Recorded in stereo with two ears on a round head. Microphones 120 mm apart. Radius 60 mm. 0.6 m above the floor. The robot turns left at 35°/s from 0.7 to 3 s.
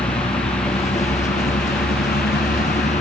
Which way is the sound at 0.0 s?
135° left.